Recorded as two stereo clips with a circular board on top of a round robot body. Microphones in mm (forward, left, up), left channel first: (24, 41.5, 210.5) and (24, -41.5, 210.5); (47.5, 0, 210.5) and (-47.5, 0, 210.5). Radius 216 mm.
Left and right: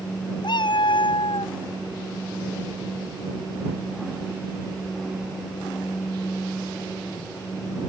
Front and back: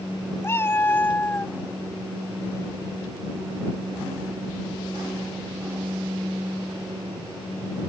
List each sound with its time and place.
0.4 s a cat meowing: 65° left; by 1.5 s 75° left